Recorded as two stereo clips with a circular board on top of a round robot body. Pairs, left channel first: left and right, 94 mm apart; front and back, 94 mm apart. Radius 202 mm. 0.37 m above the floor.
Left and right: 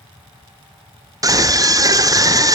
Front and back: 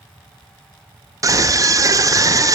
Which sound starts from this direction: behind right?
A scream, at 1.2 s.